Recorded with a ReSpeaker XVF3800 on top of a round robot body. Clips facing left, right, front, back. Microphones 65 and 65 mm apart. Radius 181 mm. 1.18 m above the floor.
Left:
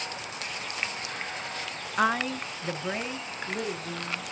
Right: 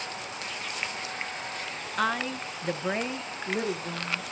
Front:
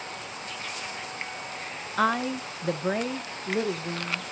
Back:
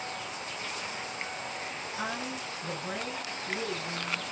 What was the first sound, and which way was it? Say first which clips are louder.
A woman speaking: left 3 dB, front 12 dB; 20° left.